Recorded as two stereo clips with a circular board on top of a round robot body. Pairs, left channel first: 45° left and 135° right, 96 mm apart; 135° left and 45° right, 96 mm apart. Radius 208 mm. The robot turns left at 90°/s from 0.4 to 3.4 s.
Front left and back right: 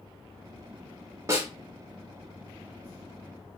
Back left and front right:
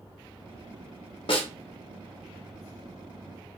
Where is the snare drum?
165° left, 2 m; by 1.5 s 145° left, 2 m.